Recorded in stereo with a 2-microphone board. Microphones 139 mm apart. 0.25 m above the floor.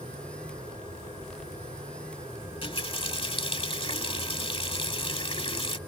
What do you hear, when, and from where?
2.4 s a running tap: 40° left (ahead or behind)